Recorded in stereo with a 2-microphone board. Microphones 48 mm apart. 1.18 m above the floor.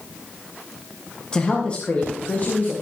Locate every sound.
1.3 s a woman speaking: 20° left (ahead or behind), 2 m; by 2.7 s 40° left (ahead or behind), 2.5 m